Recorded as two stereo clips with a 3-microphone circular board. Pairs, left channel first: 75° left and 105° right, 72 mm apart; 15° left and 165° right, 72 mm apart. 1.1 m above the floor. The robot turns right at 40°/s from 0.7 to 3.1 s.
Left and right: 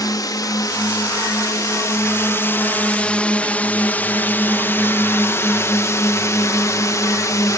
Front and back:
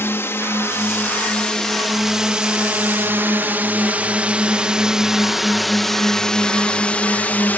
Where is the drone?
65° left; by 7.6 s 70° left.